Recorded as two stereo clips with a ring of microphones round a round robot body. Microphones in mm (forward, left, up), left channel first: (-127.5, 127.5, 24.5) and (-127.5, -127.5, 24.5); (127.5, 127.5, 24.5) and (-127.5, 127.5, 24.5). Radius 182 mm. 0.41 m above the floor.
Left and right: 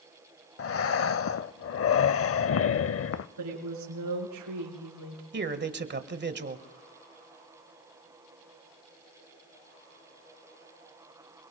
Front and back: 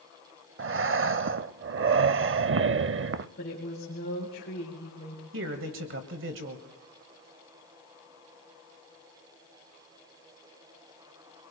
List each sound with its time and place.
0.6 s breathing: 130° left, 0.6 m
3.4 s a woman speaking: 65° right, 5 m
5.3 s a man speaking: 135° right, 1.6 m